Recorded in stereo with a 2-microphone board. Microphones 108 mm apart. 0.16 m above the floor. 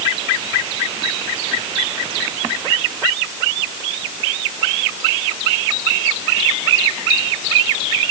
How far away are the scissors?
No scissors in this recording.